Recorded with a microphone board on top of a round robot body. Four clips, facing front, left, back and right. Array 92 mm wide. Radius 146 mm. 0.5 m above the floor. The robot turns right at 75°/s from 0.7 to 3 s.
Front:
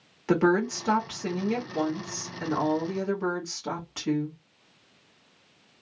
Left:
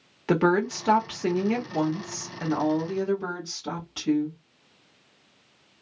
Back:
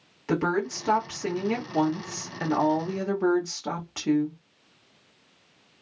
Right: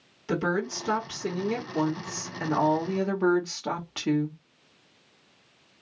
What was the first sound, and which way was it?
A woman speaking, 75° left.